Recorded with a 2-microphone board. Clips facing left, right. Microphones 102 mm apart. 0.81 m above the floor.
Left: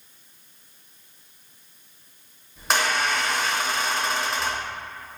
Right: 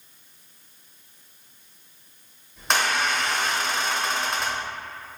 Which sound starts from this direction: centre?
A squeak, at 2.6 s.